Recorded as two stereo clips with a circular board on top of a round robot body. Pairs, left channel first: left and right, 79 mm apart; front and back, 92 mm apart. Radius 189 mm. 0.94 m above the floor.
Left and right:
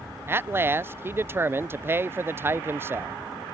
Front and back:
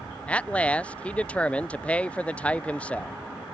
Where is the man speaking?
65° right.